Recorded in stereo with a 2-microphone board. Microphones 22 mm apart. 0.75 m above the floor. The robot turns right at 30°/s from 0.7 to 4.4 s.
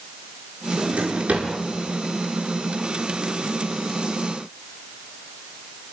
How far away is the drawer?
About 8 m.